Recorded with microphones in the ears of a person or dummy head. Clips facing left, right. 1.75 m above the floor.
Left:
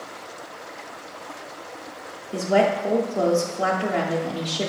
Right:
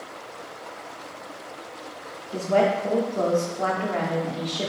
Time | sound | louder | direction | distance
2.3 | a woman speaking | left 1 dB | 20° left (ahead or behind) | 0.5 m